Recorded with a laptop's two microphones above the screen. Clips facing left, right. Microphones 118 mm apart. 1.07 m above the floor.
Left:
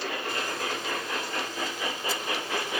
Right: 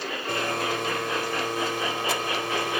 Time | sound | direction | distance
0.3 | a blender | 75° right (ahead or behind) | ?